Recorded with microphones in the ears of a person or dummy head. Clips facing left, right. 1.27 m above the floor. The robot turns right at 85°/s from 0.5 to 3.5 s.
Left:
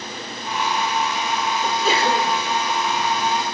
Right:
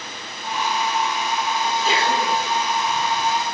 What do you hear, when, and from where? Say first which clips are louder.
1.6 s a sneeze: left 2 dB; 55° left, 5 m; by 2.3 s 115° left, 5 m